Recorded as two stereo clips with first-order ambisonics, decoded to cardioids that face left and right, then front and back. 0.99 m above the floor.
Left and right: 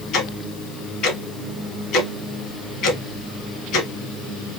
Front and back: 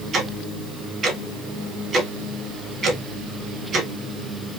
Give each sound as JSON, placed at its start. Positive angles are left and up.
{"t": 0.1, "sound": "ticking", "azimuth_deg": 125, "distance_m": 1.5}